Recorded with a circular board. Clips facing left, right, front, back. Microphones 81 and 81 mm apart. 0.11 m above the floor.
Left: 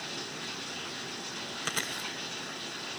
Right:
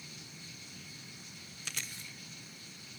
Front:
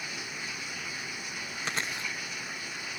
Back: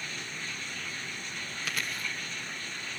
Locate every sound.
0.0 s running water: 80° left
1.6 s chewing: 60° left